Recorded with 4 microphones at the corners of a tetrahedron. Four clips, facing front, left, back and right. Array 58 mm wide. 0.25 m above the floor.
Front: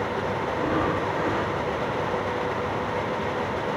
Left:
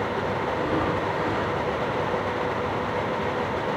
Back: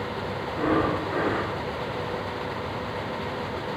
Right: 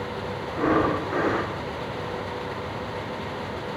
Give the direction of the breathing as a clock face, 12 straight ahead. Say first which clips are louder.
Right 6 dB, back 3 dB; 4 o'clock.